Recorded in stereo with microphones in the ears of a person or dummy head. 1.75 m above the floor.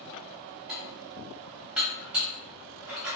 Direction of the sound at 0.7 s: Centre (ahead or behind).